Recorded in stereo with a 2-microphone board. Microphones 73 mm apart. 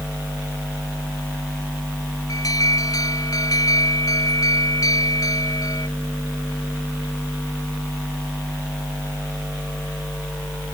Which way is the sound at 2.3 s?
50° left (ahead or behind).